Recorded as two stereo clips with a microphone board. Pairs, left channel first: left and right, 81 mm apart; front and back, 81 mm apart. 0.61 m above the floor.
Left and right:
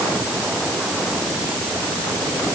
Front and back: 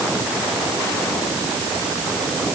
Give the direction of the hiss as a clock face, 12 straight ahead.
No hiss in this recording.